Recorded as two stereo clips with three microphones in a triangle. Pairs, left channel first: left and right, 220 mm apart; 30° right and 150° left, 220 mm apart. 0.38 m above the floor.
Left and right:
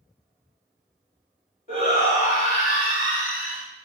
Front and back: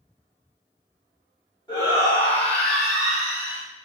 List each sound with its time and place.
1.7 s a shout: 40° left, 2.0 m; by 3.6 s 75° left, 1.6 m